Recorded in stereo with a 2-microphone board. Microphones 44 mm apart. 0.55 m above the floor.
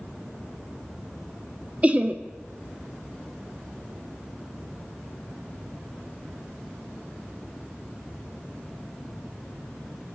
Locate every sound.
1.8 s laughter: 30° right (ahead or behind), 0.7 m